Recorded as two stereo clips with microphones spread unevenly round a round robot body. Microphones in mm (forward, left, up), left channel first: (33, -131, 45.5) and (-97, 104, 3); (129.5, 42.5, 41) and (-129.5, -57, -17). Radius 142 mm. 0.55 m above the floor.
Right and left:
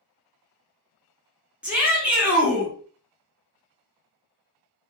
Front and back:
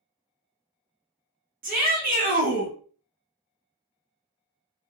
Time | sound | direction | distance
1.6 | a shout | 170° right | 1.3 m